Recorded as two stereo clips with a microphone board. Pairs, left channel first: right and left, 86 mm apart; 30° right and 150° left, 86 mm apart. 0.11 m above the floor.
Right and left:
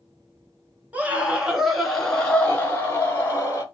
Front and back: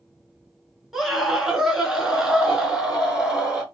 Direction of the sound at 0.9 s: 70° left.